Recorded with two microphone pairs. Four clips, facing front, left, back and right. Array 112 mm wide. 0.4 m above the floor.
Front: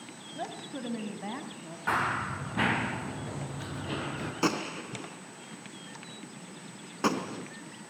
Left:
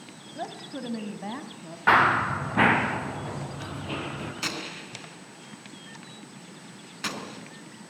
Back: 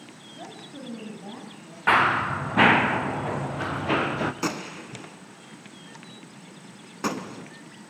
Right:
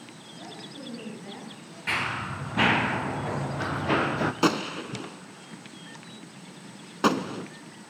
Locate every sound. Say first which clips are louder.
0.3 s a woman speaking: left 7 dB, front 3 dB; 55° left, 2.5 m; by 1.8 s 65° left, 3 m
1.9 s running footsteps: left 11 dB, back 9 dB; 135° left, 1.7 m; by 4.3 s 140° right, 2.5 m
4.4 s a gunshot: right 11 dB, front 1 dB; 80° right, 1.3 m